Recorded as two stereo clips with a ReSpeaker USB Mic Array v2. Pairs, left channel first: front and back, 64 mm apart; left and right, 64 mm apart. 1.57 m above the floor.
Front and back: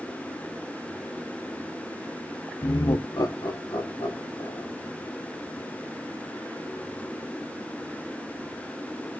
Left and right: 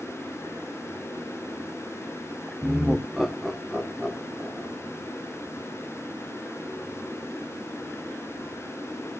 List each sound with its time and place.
2.6 s laughter: 15° right, 0.6 m; by 4.7 s 5° left, 2.5 m